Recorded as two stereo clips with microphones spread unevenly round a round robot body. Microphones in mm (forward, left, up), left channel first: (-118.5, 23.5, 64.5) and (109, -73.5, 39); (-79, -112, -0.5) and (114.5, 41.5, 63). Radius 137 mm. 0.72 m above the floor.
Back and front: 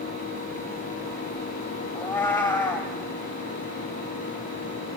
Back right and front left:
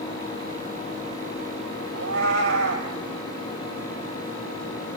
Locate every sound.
1.9 s a cat meowing: 75° left, 1.9 m